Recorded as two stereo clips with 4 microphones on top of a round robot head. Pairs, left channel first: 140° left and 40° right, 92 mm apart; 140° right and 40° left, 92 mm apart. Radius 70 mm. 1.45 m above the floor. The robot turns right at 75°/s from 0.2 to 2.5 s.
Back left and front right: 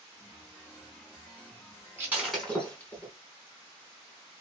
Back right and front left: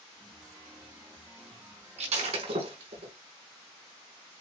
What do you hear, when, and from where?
2.0 s breaking glass: 25° left, 4 m; by 3.1 s 60° left, 4 m